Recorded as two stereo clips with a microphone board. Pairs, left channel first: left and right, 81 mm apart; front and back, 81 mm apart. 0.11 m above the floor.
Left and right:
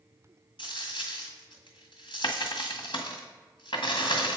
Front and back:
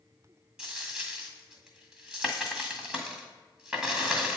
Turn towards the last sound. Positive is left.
turn(degrees=100)